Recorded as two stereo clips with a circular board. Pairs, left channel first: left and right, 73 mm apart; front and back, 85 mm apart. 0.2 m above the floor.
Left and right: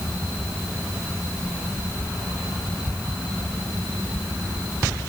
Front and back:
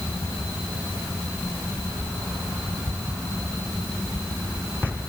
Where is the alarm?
I don't hear an alarm.